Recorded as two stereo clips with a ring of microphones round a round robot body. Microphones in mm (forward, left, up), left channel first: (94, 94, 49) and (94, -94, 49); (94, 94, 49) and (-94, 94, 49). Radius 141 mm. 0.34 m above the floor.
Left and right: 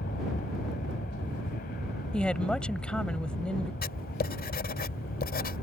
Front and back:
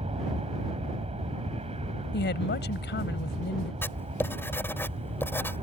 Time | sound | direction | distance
0.0 | an aircraft | 130° left | ?
2.1 | a woman speaking | 5° left | ?
3.8 | writing | 75° left | ?